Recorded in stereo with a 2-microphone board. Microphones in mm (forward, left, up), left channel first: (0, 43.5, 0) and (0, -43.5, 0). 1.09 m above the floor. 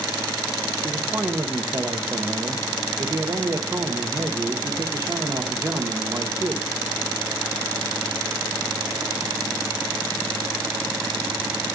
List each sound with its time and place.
0.8 s a man speaking: 40° right (ahead or behind), 1.1 m